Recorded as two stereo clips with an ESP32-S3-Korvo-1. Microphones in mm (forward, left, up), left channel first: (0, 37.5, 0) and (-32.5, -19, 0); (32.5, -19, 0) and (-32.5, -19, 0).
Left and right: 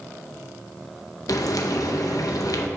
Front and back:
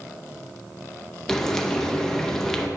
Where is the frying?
80° left, 0.7 m.